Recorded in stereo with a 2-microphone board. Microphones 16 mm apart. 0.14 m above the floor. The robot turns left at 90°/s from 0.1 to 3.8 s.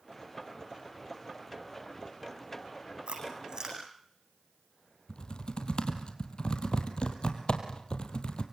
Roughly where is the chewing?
Right.